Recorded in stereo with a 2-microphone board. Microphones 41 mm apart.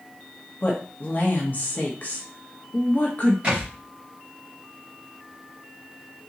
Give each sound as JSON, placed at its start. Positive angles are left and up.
{"t": 0.6, "sound": "a woman speaking", "side_deg": 40, "distance_m": 1.1}
{"t": 3.4, "sound": "a thud", "side_deg": -35, "distance_m": 2.5}